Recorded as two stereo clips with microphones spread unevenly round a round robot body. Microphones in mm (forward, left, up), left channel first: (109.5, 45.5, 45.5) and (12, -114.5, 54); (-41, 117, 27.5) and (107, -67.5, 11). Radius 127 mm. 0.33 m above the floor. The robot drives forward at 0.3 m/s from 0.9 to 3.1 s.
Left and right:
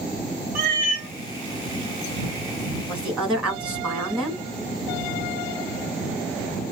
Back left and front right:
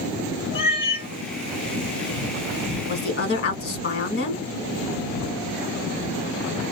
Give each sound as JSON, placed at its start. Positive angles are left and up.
{"t": 0.6, "sound": "a cat meowing", "azimuth_deg": -160, "distance_m": 0.7}
{"t": 2.9, "sound": "a woman speaking", "azimuth_deg": 150, "distance_m": 1.1}